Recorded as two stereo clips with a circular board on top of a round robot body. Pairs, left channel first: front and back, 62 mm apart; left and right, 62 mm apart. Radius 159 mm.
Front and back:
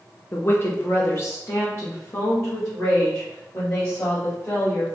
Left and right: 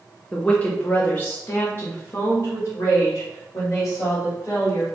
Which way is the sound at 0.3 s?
20° left.